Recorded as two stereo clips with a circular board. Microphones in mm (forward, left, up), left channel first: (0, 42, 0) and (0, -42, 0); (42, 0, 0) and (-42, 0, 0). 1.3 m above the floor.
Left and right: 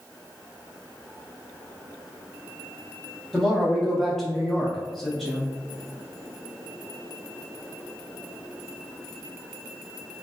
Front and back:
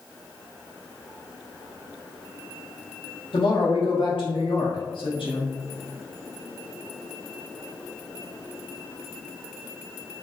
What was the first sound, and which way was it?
A woman speaking, 5° left.